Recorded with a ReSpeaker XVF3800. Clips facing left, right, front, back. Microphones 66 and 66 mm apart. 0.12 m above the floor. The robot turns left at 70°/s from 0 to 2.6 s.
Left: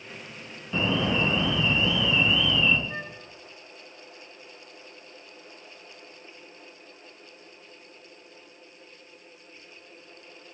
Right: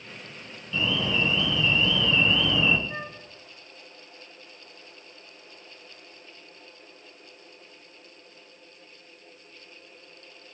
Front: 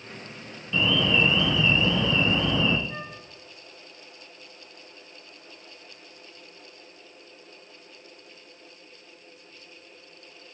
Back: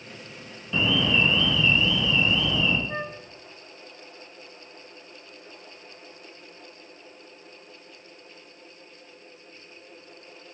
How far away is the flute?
About 0.6 m.